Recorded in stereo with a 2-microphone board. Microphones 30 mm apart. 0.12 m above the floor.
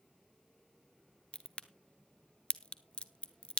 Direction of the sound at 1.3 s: 40° left (ahead or behind).